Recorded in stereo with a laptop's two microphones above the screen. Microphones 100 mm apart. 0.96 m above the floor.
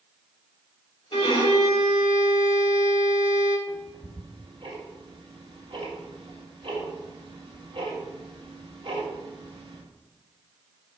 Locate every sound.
1.1 s a violin: 65° left (ahead or behind), 2.5 m
3.7 s ticking: 60° right (ahead or behind), 2 m